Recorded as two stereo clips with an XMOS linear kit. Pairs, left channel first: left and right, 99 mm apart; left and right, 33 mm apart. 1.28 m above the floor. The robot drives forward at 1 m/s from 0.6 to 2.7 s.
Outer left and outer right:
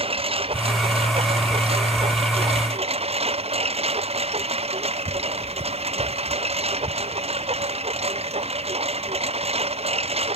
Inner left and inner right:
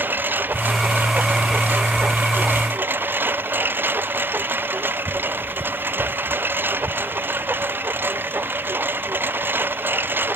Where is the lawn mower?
70° right (ahead or behind); by 10.4 s 85° right.